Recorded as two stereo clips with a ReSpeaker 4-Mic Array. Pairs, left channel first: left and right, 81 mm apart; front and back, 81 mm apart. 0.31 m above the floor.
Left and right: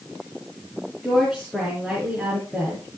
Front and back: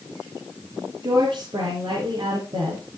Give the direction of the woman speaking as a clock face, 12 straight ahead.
6 o'clock.